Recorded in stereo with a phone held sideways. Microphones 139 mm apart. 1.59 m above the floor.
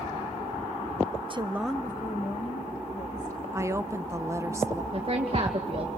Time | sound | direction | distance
1.3 | a woman speaking | 40° right (ahead or behind) | 0.8 m
3.5 | a woman speaking | 20° right (ahead or behind) | 0.9 m
4.9 | a woman speaking | 45° right (ahead or behind) | 2.5 m